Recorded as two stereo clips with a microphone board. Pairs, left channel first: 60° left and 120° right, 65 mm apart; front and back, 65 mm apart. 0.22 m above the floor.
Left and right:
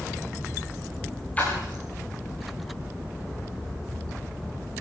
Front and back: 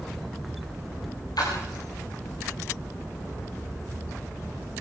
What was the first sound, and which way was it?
A splash, 10° right.